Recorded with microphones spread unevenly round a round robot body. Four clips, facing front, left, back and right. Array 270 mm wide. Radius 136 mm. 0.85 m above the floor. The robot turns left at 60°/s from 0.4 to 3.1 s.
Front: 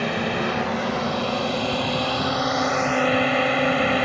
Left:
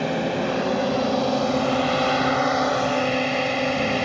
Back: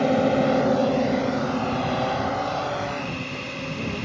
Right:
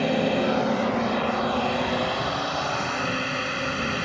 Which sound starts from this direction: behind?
A drone, at 0.0 s.